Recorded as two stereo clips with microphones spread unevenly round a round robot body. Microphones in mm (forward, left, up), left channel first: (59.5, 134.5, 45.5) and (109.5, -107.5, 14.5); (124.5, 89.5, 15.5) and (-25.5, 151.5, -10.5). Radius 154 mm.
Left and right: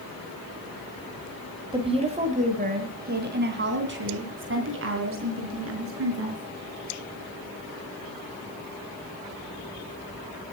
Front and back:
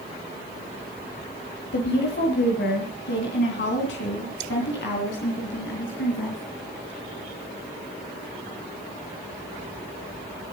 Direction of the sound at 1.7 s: 10° right.